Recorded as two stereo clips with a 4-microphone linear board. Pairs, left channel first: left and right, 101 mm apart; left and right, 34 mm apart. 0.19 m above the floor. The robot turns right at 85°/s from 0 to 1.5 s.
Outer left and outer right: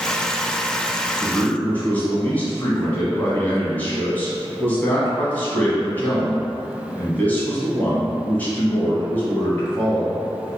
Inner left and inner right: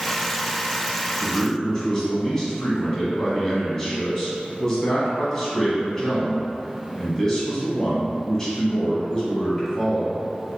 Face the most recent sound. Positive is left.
turn(degrees=15)  # may be behind; listen again after turning